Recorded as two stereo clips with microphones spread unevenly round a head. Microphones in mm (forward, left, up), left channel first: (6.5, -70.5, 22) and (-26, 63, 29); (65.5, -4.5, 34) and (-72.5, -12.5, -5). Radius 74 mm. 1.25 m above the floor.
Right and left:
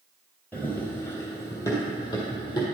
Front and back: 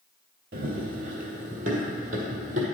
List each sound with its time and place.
0.5 s running footsteps: 155° right, 1.7 m; by 2.6 s 135° right, 2.5 m